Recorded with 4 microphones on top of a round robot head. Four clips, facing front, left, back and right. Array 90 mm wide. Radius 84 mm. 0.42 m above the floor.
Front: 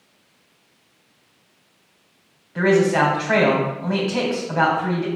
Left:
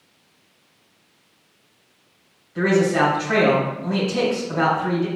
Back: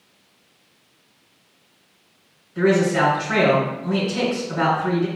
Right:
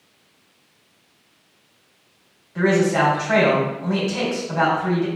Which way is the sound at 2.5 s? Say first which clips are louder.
Even, front 1 dB; 20° right.